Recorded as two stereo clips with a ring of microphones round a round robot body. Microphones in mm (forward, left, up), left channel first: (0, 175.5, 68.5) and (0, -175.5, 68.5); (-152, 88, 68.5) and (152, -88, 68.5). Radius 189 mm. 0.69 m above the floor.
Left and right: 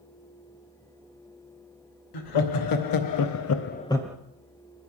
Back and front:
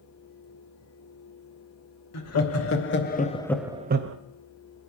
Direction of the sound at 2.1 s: 105° left.